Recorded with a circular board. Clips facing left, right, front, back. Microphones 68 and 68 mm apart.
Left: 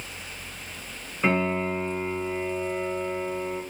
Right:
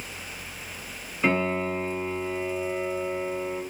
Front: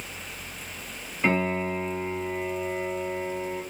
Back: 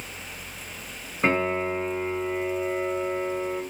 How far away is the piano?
About 2 m.